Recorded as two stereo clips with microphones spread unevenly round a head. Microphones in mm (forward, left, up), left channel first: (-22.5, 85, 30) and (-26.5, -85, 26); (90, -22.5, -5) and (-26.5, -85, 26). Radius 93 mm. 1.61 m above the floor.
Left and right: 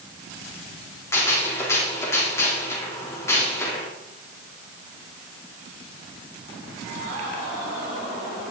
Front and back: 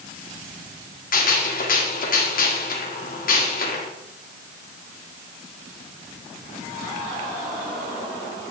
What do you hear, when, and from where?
1.1 s a gunshot: 10° left, 4 m